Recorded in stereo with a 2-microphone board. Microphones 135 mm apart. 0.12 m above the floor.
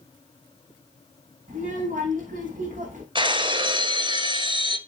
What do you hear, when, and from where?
1.5 s a child speaking: 70° right (ahead or behind), 6 m
3.1 s breaking glass: 40° right (ahead or behind), 1.4 m